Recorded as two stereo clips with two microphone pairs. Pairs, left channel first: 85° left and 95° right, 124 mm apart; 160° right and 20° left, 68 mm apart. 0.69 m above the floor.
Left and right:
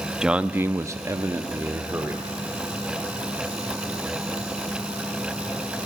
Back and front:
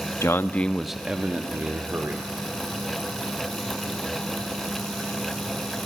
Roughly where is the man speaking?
Behind.